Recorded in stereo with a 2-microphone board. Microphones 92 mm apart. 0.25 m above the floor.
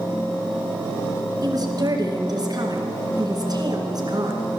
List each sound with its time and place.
1.4 s a woman speaking: 50° right (ahead or behind), 2.5 m